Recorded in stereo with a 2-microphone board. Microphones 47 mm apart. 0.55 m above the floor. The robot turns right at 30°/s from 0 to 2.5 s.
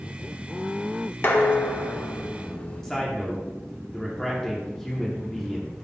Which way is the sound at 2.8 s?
15° left (ahead or behind).